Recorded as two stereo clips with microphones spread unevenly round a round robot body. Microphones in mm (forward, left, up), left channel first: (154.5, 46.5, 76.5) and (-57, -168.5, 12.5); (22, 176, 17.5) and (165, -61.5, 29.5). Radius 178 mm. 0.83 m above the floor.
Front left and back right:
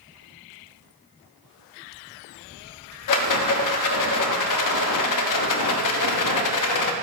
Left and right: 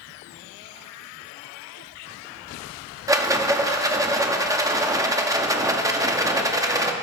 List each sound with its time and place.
3.1 s a rattle: 20° left, 1.4 m